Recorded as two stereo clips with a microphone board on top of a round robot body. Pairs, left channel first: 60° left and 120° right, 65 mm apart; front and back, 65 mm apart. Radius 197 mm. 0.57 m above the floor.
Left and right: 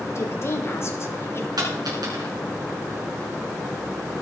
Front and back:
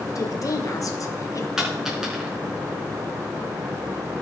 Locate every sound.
0.1 s a woman speaking: 20° left, 2 m
1.6 s a dropped coin: 95° right, 5 m